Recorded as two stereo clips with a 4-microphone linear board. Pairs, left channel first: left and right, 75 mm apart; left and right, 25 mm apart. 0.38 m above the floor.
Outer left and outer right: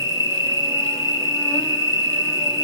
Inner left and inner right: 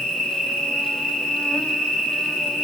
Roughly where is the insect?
Left.